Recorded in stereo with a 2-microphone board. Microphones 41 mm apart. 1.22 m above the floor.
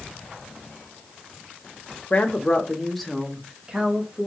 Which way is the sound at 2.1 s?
40° left (ahead or behind).